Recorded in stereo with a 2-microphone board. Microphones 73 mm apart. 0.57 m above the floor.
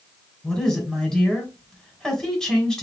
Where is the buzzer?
No buzzer in this recording.